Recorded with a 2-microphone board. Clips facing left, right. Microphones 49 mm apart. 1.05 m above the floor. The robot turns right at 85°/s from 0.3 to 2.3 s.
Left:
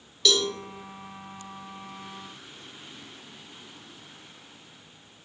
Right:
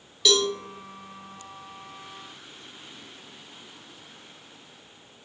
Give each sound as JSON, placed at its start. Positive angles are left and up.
{"t": 0.2, "sound": "a cowbell", "side_deg": -10, "distance_m": 0.6}